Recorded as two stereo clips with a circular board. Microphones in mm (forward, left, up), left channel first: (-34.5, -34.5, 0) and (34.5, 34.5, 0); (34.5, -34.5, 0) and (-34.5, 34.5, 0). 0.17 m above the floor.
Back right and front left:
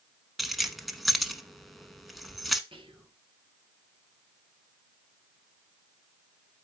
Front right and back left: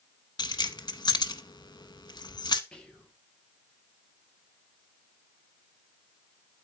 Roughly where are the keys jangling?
Ahead right.